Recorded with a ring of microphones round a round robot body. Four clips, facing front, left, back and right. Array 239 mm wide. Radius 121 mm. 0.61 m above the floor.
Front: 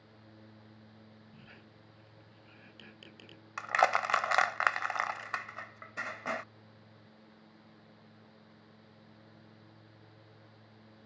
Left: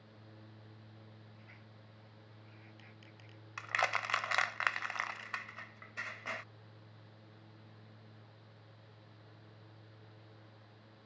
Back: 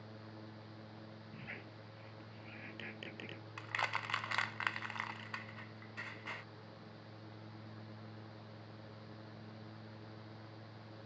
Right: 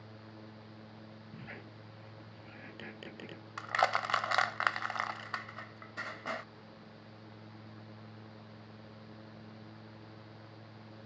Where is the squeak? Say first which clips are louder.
Right 10 dB, back 5 dB; 105° right.